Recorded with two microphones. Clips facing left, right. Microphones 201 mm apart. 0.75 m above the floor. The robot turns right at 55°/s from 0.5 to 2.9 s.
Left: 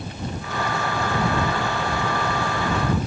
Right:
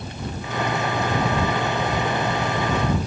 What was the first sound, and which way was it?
Only background noise.